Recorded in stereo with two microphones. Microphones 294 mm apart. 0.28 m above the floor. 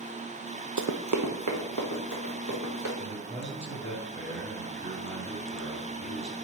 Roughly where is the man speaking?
Right.